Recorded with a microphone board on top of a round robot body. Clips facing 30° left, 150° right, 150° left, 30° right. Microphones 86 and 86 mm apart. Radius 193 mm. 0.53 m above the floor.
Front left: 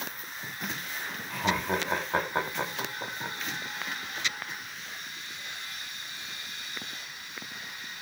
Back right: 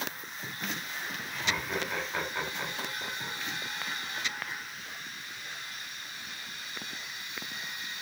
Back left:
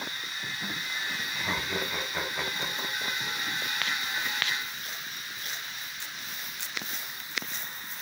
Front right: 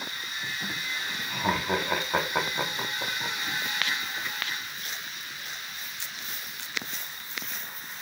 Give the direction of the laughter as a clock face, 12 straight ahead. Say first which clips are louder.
Front left 6 dB, front right 8 dB; 12 o'clock.